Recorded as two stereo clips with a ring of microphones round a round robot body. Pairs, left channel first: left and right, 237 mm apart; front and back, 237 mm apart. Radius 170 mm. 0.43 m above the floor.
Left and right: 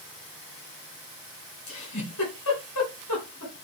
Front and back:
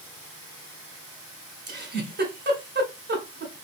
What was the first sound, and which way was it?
A giggle, 135° left.